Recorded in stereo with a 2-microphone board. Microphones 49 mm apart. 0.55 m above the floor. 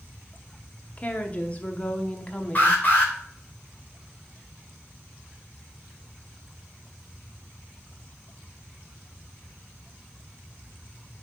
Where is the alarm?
35° left (ahead or behind), 2.5 m.